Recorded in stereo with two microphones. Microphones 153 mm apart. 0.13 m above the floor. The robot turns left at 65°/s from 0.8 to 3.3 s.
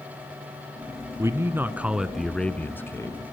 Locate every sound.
1.2 s a man speaking: 20° right (ahead or behind), 1.2 m; by 3.2 s 20° left (ahead or behind), 1.2 m